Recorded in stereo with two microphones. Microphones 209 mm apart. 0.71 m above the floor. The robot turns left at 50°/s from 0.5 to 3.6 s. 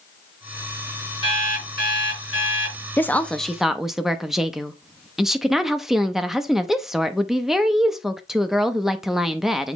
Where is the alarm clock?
155° left, 5 m; by 2.8 s 80° left, 5 m.